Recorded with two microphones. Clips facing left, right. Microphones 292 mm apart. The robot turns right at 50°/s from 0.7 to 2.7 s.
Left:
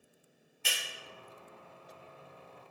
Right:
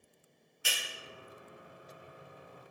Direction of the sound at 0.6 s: 10° right (ahead or behind).